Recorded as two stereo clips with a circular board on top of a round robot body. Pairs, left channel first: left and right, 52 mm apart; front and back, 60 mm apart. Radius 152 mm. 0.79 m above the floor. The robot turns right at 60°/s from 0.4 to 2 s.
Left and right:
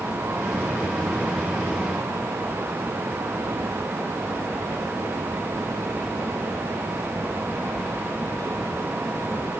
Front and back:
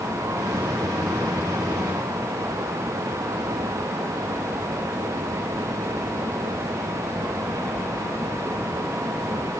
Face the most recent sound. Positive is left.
No sound to turn to.